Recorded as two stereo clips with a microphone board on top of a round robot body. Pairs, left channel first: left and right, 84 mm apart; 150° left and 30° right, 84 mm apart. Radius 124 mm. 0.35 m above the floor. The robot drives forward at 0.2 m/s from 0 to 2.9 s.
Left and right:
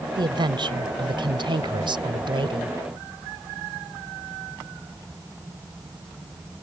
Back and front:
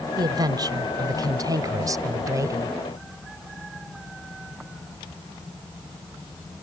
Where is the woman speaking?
65° right; by 2.8 s 80° right.